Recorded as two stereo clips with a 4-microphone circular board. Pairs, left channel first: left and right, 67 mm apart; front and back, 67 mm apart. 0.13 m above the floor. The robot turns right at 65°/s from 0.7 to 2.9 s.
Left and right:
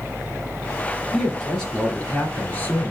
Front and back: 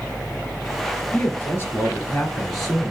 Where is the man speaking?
10° right, 1.7 m; by 2.9 s 105° left, 1.7 m.